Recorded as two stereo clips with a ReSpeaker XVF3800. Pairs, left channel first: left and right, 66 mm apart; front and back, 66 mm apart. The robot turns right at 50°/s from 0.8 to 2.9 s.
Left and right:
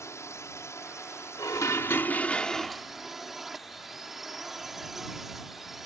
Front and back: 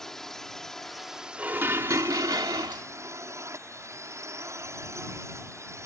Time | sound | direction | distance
0.0 | a drone | 80° left | ?
1.4 | dishes clattering | 115° left | ?